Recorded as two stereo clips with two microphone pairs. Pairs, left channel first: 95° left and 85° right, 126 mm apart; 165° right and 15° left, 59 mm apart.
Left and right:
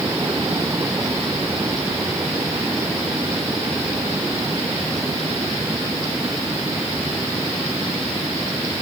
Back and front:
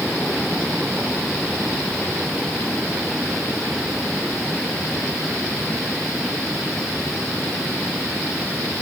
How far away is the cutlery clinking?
I don't hear cutlery clinking.